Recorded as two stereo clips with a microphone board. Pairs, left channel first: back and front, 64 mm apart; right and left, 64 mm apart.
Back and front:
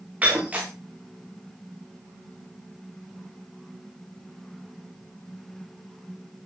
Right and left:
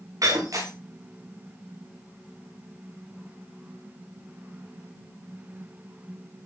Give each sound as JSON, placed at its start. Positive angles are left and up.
{"t": 0.2, "sound": "breaking glass", "azimuth_deg": 70, "distance_m": 7.0}